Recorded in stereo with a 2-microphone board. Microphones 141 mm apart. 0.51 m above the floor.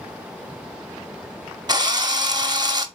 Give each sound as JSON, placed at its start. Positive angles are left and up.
{"t": 1.7, "sound": "a drill", "side_deg": -30, "distance_m": 0.9}